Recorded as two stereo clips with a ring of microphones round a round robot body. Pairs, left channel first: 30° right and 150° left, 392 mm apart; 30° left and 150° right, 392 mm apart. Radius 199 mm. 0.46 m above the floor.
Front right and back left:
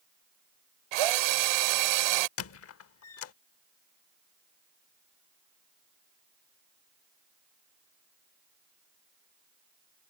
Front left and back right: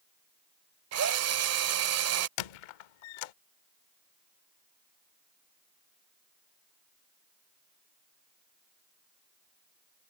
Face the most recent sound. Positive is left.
turn(degrees=25)